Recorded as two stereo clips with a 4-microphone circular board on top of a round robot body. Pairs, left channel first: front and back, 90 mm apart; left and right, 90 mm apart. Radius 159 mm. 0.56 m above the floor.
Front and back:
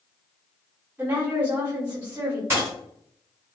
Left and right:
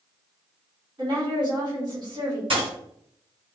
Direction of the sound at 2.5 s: 115° right.